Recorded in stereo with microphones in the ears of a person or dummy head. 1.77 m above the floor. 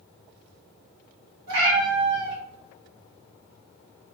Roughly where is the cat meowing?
Right.